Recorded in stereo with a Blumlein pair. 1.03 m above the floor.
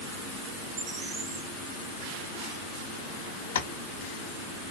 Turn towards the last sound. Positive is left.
turn(degrees=65)